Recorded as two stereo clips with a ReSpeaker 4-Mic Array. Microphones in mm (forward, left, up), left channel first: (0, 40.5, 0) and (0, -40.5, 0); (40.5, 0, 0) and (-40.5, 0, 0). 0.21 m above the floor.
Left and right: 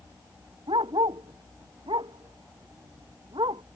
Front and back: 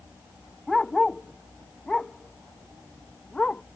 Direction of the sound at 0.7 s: 85° right.